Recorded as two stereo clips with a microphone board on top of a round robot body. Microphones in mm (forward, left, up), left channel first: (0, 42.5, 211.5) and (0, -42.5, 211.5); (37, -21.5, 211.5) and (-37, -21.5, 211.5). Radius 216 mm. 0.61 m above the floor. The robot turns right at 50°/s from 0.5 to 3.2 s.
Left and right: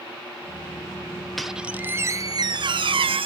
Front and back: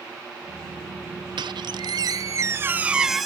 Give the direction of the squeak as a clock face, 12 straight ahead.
6 o'clock.